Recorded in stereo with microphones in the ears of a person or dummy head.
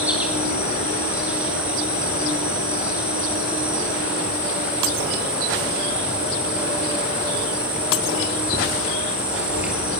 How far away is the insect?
About 4.5 m.